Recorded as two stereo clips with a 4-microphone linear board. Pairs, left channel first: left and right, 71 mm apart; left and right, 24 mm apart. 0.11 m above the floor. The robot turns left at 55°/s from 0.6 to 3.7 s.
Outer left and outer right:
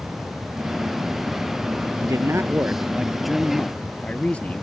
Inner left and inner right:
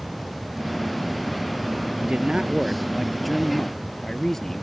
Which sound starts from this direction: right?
A man speaking, at 2.0 s.